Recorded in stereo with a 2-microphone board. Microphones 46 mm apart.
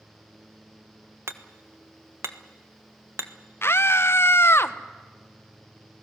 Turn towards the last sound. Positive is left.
turn(degrees=60)  # may be behind; listen again after turning